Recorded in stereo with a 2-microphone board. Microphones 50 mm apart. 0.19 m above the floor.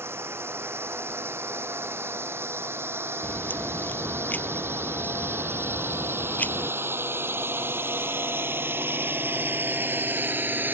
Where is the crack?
35° left (ahead or behind).